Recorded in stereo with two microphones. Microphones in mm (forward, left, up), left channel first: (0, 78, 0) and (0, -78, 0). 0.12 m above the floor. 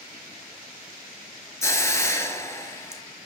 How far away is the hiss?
About 0.7 m.